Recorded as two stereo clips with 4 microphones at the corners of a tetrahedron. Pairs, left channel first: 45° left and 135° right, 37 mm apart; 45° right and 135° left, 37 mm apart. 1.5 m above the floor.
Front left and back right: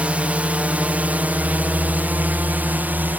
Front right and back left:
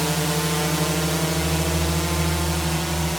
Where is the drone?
135° right.